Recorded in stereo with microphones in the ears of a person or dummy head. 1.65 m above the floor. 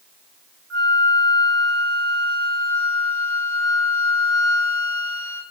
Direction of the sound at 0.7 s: 75° right (ahead or behind).